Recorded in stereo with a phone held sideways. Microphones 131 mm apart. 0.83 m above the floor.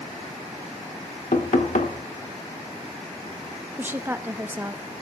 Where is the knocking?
70° left (ahead or behind), 1.7 m.